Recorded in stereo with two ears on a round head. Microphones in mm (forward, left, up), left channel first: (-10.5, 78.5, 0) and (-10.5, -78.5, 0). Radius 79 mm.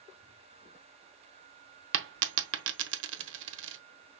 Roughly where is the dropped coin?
Right.